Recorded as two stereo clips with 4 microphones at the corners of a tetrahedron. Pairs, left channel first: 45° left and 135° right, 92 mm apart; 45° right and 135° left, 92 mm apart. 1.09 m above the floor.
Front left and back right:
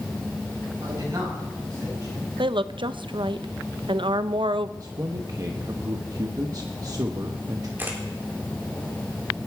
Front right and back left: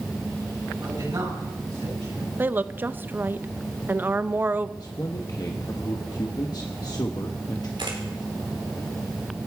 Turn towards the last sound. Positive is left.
turn(degrees=160)